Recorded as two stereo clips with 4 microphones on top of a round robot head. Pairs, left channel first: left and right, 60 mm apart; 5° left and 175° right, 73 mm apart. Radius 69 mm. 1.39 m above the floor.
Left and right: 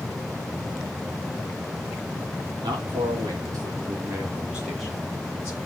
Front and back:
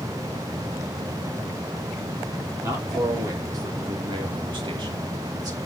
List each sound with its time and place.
2.6 s a man speaking: 110° right, 3 m; by 5.6 s 155° left, 2 m